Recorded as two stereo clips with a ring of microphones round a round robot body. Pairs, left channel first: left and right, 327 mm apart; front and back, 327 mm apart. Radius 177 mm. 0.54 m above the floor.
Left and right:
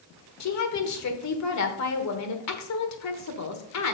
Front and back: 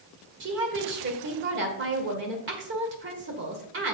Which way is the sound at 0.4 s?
125° left.